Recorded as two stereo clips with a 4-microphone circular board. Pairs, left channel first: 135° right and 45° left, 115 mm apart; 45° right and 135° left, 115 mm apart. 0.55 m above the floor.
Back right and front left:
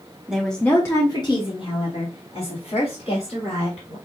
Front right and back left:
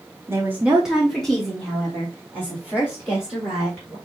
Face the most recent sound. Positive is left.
turn(degrees=-110)